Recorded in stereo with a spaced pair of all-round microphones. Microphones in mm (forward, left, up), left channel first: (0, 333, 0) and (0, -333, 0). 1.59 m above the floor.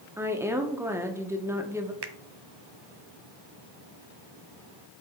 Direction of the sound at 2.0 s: 40° right (ahead or behind).